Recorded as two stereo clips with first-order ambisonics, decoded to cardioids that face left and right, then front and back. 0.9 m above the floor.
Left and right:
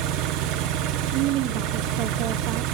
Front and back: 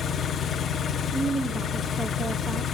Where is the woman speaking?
105° right, 1.0 m.